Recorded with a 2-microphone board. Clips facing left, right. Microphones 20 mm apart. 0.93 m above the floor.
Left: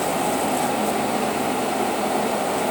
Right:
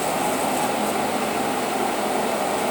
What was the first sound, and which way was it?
Only background noise.